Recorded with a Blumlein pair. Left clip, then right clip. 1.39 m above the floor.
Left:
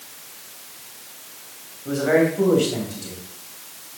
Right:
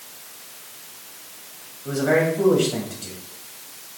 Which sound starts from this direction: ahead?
A man speaking, at 1.9 s.